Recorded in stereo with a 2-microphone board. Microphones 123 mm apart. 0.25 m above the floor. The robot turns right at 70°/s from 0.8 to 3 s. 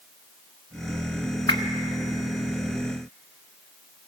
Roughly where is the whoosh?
Left.